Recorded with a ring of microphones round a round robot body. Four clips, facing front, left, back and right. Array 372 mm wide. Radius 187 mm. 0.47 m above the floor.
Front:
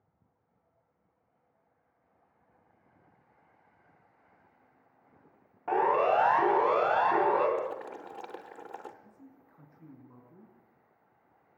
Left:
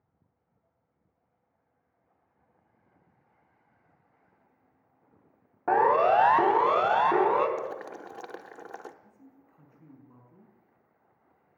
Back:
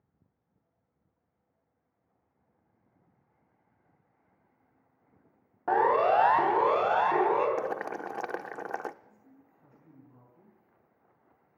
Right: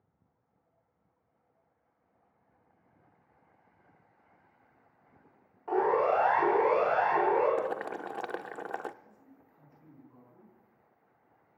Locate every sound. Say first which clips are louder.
5.7 s a siren: left 5 dB, back 2 dB; 105° left, 3 m; by 7.5 s 85° left, 4.5 m
7.6 s boiling: right 3 dB, back 3 dB; 150° right, 0.6 m
9.0 s a man speaking: left 2 dB, front 3 dB; 30° left, 5 m